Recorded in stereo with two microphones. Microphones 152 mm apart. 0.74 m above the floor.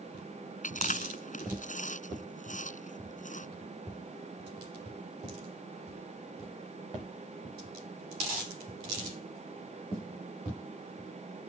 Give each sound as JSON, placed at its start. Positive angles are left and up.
{"t": 0.6, "sound": "chewing", "side_deg": 55}